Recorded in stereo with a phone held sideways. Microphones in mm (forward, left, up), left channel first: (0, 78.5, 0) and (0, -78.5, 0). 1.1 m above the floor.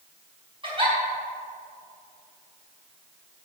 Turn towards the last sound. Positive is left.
turn(degrees=-35)  # may be behind; listen again after turning